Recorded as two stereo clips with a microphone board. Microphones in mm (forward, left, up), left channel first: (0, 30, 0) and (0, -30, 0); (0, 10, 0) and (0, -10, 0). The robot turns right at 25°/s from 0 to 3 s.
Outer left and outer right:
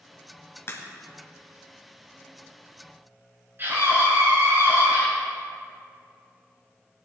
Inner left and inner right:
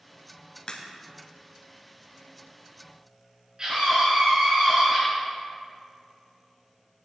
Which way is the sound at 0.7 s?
45° left (ahead or behind).